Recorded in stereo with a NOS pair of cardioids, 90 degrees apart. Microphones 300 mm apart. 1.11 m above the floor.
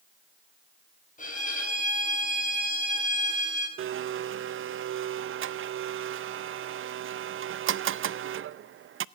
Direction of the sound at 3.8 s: 45° right.